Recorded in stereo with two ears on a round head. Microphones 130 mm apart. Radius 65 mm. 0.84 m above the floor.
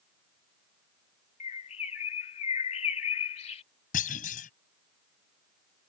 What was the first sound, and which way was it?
A bird, 50° left (ahead or behind).